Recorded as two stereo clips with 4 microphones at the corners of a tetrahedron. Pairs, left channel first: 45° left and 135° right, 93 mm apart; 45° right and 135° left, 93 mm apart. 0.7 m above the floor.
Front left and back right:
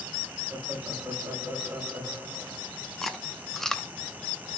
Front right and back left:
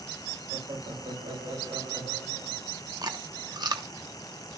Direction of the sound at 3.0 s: 130° left.